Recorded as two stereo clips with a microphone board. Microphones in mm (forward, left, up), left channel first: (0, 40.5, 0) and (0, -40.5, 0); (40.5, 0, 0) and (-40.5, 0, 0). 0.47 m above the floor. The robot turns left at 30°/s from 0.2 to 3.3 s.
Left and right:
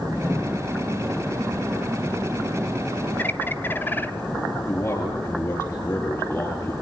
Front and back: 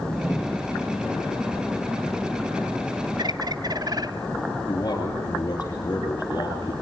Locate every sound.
3.2 s a bird: 155° left, 1.3 m
4.7 s a man speaking: 50° left, 8 m